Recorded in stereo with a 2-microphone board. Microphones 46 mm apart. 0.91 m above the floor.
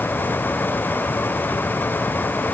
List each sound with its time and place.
Only background noise.